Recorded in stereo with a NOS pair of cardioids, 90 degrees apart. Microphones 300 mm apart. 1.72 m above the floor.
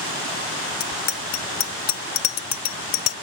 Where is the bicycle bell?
70° left; by 3.1 s 75° left.